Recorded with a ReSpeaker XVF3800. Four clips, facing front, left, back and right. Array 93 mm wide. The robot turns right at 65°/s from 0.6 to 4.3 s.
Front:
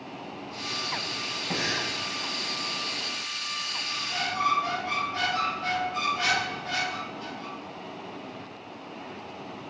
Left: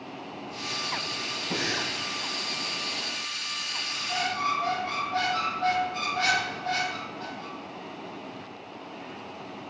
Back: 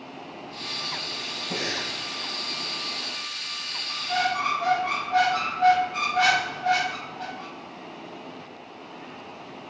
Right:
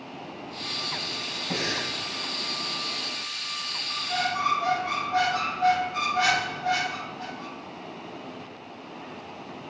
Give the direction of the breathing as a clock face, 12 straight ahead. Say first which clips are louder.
Right 1 dB, front 1 dB; 1 o'clock.